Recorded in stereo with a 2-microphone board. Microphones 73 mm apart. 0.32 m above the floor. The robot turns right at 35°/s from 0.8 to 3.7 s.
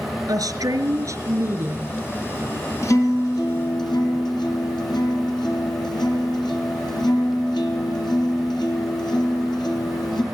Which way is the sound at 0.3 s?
55° right.